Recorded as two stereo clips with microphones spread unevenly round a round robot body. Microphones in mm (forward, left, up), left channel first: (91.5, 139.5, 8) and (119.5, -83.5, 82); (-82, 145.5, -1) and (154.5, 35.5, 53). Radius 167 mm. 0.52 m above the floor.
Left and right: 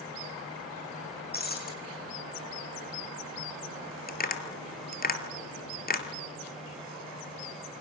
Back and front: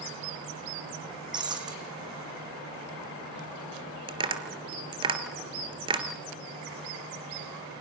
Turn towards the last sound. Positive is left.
turn(degrees=45)